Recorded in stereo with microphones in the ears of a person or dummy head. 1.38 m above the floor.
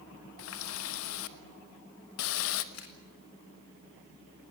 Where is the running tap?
75° left (ahead or behind), 1.2 m.